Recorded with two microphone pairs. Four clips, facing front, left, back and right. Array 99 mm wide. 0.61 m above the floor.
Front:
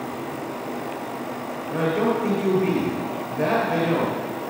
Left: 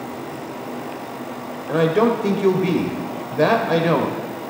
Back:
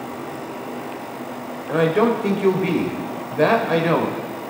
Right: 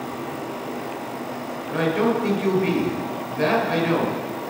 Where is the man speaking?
125° left, 2.5 m.